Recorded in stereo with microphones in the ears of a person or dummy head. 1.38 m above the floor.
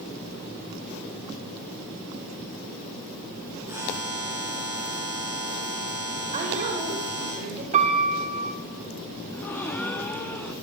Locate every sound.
3.7 s a buzzer: 15° right (ahead or behind), 7.5 m
6.3 s a woman speaking: 40° right (ahead or behind), 4.5 m
7.7 s a piano: 40° right (ahead or behind), 3 m
9.3 s a gasp: 5° left (ahead or behind), 0.9 m